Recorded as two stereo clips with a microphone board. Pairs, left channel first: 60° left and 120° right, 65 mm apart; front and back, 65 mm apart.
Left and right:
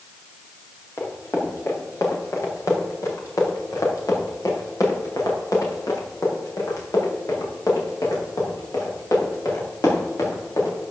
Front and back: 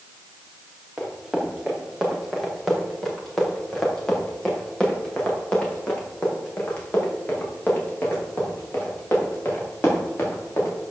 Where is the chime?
I don't hear a chime.